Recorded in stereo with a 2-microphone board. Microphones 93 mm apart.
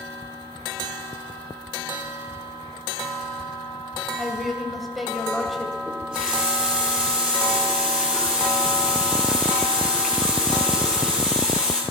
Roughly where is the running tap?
Centre.